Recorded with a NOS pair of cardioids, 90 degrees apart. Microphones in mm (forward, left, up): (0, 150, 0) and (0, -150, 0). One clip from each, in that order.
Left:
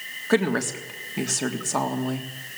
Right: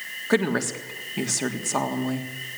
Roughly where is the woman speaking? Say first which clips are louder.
Left 1 dB; ahead.